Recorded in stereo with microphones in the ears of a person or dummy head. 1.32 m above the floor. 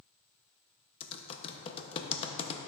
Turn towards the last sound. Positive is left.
turn(degrees=30)  # may be behind; listen again after turning